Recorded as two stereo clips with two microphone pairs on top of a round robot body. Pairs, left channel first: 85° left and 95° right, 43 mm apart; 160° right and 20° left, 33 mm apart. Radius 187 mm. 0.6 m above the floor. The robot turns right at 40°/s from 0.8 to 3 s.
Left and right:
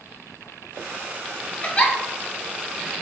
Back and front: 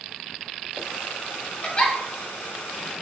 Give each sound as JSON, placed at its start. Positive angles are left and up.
{"t": 1.6, "sound": "a giggle", "azimuth_deg": 140, "distance_m": 0.5}